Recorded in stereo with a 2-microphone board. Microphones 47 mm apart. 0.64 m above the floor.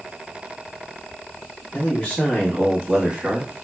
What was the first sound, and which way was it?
A man speaking, 30° left (ahead or behind).